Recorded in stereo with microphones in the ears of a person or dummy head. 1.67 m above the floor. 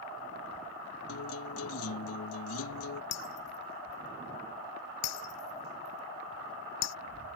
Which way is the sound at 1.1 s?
70° left (ahead or behind).